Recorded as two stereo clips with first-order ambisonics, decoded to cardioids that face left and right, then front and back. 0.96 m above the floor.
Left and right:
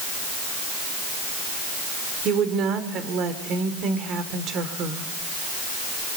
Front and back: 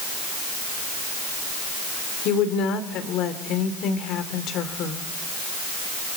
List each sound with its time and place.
2.2 s a woman speaking: 40° right, 3 m